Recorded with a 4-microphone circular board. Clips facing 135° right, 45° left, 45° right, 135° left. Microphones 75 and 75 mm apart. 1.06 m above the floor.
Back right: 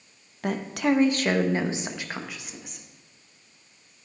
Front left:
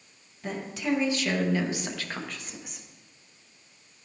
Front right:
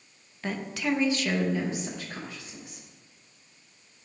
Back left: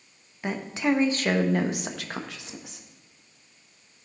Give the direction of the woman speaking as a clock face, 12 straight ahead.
5 o'clock.